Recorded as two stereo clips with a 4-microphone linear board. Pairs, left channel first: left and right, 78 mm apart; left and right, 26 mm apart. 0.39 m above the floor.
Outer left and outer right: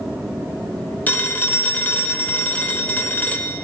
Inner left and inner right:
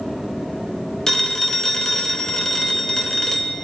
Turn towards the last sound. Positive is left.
turn(degrees=20)  # may be behind; listen again after turning